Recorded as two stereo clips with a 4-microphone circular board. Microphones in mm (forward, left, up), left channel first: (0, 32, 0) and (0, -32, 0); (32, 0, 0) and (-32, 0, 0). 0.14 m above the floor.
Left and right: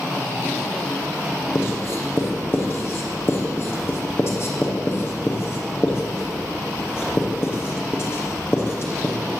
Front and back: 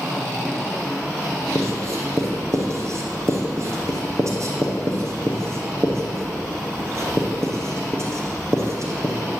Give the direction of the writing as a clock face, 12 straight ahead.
7 o'clock.